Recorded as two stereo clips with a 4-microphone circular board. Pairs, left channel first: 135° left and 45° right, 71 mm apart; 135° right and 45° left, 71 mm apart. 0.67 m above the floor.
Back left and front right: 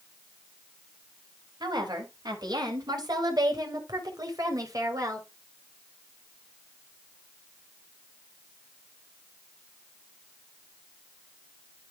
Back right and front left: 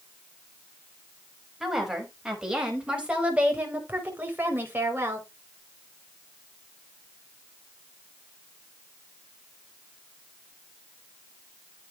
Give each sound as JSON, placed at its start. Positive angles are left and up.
{"t": 1.6, "sound": "a woman speaking", "azimuth_deg": -40, "distance_m": 5.0}